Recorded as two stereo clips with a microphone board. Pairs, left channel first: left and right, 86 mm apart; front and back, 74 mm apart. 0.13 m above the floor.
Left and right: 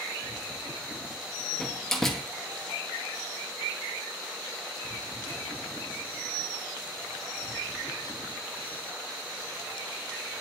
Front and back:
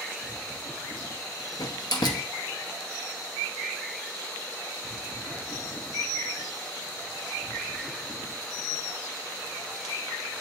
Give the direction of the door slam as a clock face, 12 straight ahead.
12 o'clock.